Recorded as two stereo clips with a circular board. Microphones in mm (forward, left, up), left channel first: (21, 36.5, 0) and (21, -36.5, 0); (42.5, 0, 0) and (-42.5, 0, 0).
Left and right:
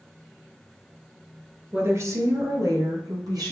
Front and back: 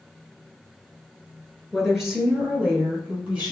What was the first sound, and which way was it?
A woman speaking, 85° right.